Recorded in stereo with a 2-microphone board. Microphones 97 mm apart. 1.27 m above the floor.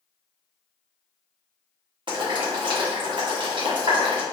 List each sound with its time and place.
2.1 s boiling: 55° right (ahead or behind), 1.2 m